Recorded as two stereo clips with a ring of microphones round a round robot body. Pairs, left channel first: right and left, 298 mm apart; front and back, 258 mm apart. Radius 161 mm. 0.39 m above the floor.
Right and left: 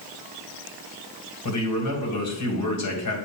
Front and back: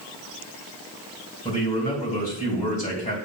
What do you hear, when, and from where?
1.4 s a man speaking: 65° right, 2.5 m